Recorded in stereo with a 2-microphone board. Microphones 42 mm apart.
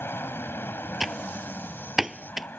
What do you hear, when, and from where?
0.0 s an aircraft: 55° left (ahead or behind); by 2.6 s 45° left (ahead or behind)
1.0 s typing on a keyboard: 10° right (ahead or behind)